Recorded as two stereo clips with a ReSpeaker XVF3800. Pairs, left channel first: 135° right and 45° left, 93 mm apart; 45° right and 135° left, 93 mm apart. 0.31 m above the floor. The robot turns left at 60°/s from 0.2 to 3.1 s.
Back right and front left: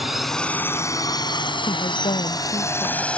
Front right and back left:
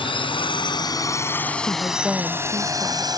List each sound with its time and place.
0.0 s a drone: 45° right; by 3.2 s 155° left
1.7 s a woman speaking: 115° right; by 3.0 s 160° left